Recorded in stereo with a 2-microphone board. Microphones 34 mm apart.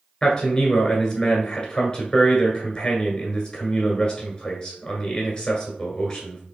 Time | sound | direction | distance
0.2 | a man speaking | 20° left (ahead or behind) | 1.4 m